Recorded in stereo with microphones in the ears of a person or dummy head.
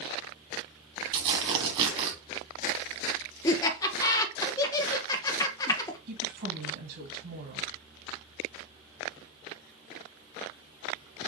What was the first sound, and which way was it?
Tearing paper, 35° right (ahead or behind).